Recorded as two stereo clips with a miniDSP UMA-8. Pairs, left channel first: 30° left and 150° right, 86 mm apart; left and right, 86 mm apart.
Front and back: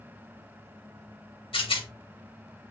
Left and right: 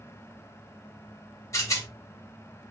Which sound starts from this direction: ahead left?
A rattle, at 1.5 s.